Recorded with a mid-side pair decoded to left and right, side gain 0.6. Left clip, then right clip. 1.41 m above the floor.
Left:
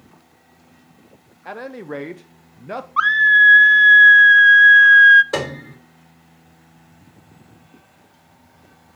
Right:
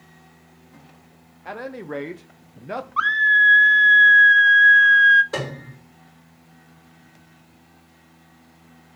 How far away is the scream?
About 0.7 m.